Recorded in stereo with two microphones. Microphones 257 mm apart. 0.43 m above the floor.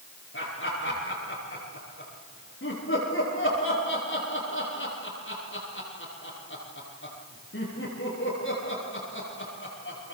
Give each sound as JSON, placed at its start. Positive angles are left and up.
{"t": 0.3, "sound": "laughter", "side_deg": 55, "distance_m": 9.0}